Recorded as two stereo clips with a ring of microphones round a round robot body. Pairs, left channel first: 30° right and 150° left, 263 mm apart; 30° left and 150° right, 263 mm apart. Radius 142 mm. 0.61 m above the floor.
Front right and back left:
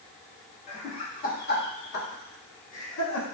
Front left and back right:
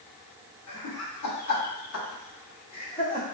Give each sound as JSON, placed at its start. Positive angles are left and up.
{"t": 0.7, "sound": "laughter", "azimuth_deg": 35, "distance_m": 1.9}